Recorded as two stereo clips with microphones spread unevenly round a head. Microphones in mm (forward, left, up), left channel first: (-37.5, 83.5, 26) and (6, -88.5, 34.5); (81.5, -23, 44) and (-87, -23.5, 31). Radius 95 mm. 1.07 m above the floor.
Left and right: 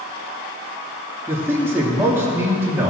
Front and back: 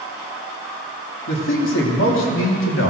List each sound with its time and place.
1.3 s a man speaking: 5° left, 2.5 m